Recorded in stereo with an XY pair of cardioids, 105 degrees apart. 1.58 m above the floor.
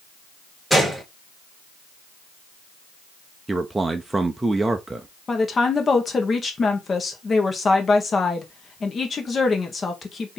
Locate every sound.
0.7 s a gunshot: 5° right, 1.7 m
3.5 s a man speaking: 15° right, 0.6 m
5.3 s a woman speaking: 35° left, 1.4 m